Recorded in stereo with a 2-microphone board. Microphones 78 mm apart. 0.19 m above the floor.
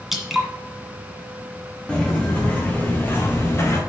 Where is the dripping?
Centre (ahead or behind), 1.7 m.